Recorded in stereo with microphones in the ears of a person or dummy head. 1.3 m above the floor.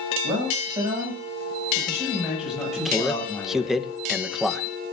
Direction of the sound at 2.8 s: 5° left (ahead or behind).